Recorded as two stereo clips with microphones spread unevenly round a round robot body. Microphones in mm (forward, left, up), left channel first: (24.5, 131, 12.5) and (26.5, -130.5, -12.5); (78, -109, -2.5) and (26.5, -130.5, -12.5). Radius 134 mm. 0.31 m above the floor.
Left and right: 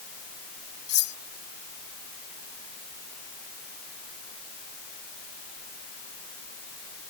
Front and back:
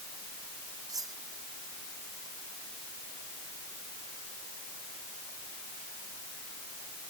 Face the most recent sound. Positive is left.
turn(degrees=145)